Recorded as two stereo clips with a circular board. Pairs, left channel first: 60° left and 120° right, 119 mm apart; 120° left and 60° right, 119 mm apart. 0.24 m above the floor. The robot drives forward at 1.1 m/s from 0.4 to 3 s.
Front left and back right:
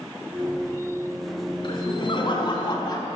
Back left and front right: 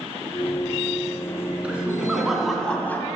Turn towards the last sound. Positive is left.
turn(degrees=60)